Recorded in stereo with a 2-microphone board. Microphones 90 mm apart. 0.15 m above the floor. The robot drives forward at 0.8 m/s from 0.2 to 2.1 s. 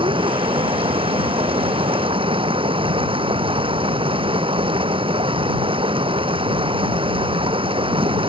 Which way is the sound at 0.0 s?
70° right (ahead or behind).